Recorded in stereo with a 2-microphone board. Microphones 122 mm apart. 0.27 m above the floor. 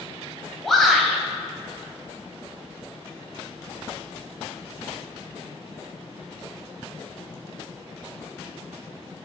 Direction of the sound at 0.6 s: Centre (ahead or behind).